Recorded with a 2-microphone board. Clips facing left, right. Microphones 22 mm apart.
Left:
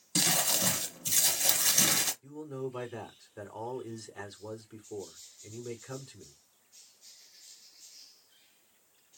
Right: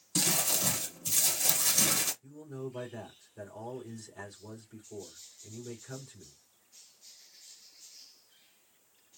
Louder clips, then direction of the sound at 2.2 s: Left 3 dB; 85° left.